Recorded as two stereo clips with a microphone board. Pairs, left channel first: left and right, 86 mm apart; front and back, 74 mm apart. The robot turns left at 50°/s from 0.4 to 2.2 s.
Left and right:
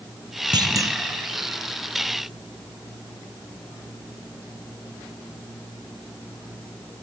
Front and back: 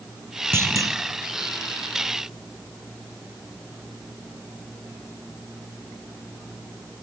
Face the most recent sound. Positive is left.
turn(degrees=150)